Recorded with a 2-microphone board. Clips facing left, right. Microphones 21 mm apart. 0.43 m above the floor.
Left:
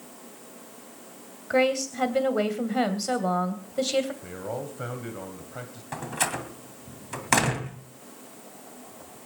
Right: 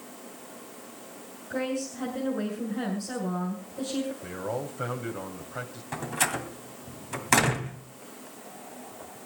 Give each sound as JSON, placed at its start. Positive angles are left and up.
{"t": 1.5, "sound": "a woman speaking", "side_deg": 60, "distance_m": 2.5}
{"t": 4.2, "sound": "a man speaking", "side_deg": -10, "distance_m": 2.5}
{"t": 5.9, "sound": "a door slam", "side_deg": 0, "distance_m": 2.0}